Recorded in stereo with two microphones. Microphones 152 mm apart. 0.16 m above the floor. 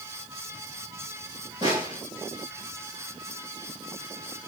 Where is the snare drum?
30° right (ahead or behind), 7.5 m.